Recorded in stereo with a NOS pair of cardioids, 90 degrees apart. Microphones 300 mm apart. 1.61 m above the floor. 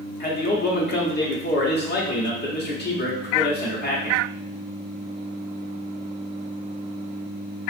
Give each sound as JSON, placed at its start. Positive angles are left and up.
{"t": 0.2, "sound": "a man speaking", "azimuth_deg": 35, "distance_m": 1.0}